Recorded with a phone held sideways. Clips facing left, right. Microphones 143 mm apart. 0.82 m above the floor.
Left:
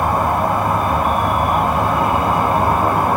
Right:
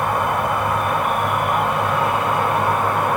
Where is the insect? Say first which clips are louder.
Left 3 dB; 35° left (ahead or behind), 0.9 m.